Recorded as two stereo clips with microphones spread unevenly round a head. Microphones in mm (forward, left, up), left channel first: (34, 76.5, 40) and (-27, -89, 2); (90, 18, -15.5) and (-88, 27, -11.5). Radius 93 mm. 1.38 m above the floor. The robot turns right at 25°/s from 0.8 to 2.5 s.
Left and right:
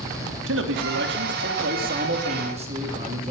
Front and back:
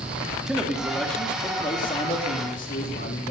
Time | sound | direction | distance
0.5 | a man speaking | 95° right | 2.5 m